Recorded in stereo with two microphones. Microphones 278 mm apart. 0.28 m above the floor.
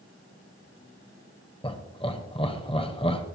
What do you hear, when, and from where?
1.6 s laughter: 20° left (ahead or behind), 1.3 m